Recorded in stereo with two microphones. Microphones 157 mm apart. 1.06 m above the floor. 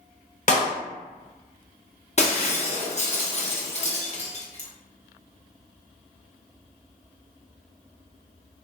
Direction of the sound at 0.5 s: 50° left (ahead or behind).